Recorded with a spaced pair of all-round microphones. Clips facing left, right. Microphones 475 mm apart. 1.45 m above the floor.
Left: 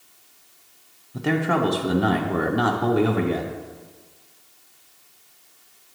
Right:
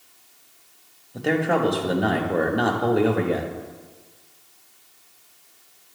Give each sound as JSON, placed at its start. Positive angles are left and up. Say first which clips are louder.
{"t": 1.1, "sound": "a man speaking", "louder": "right 1 dB", "side_deg": 20, "distance_m": 0.7}